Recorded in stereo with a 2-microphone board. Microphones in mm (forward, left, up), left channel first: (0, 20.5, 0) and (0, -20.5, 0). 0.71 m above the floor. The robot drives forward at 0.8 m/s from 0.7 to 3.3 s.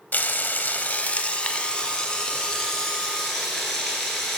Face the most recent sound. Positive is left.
turn(degrees=10)  # may be behind; listen again after turning